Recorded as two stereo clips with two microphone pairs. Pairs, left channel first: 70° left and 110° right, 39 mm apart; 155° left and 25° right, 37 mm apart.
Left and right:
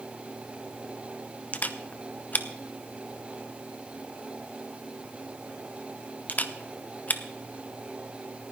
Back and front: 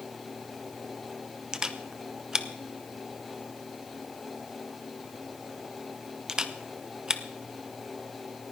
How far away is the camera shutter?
About 0.8 m.